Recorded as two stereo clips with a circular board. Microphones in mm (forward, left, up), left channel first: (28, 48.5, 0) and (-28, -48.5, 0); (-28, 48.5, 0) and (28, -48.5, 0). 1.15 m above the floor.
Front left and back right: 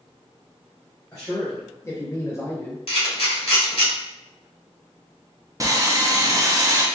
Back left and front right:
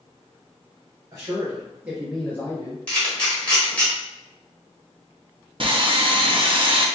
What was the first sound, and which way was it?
A man speaking, 5° right.